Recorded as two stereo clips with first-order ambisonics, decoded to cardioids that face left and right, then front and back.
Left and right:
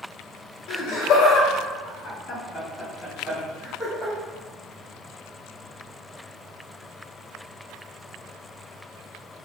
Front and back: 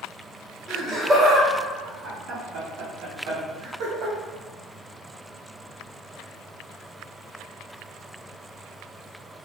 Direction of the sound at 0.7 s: 95° left.